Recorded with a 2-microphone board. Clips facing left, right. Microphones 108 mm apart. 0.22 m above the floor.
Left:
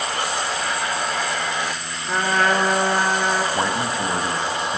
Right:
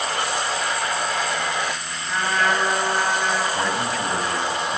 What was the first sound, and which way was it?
A trumpet, 50° left (ahead or behind).